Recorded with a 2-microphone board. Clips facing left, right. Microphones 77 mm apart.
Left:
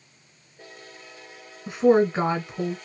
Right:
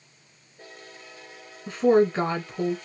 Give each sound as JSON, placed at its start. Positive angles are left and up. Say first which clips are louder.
{"t": 1.7, "sound": "a woman speaking", "louder": "left 1 dB", "side_deg": 20, "distance_m": 1.2}